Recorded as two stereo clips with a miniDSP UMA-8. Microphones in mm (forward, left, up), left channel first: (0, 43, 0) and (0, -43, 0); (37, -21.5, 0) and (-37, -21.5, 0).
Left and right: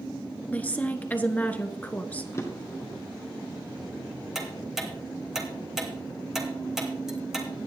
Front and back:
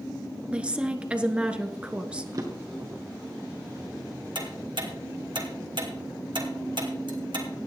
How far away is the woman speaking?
About 1.1 m.